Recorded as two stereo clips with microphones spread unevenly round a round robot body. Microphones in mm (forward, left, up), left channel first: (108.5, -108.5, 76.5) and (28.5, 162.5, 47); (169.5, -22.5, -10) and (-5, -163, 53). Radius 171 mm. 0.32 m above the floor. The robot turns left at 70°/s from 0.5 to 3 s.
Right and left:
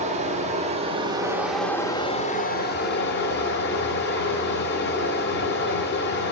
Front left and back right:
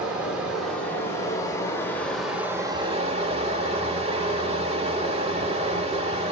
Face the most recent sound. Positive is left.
turn(degrees=-70)